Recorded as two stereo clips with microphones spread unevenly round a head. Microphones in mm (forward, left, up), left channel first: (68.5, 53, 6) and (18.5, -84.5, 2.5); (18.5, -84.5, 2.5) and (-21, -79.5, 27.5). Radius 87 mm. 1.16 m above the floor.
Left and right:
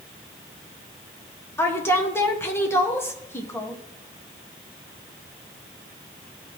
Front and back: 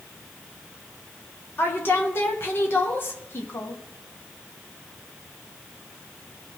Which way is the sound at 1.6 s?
5° right.